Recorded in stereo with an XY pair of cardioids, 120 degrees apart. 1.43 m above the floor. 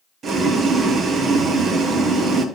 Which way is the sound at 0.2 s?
45° right.